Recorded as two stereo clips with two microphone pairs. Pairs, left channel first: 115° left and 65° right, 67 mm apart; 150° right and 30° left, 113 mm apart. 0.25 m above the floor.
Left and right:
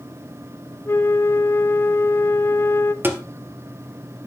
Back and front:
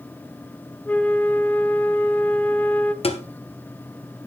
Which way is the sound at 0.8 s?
140° left.